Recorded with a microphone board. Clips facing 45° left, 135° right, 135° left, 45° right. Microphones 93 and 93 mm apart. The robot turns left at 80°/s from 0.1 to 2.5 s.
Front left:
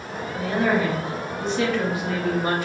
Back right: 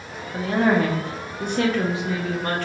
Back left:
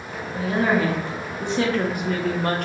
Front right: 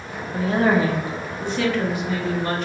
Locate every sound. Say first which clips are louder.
0.3 s a woman speaking: back right 2 dB, front right 2 dB; 65° right, 0.7 m; by 2.6 s 120° left, 0.7 m